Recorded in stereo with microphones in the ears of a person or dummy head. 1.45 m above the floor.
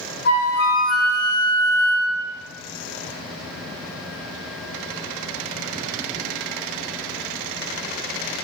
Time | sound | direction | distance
0.2 | a flute | 55° left (ahead or behind) | 0.6 m